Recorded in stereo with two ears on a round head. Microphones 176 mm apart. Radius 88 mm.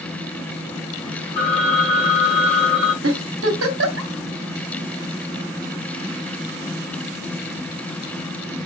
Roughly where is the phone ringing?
Right.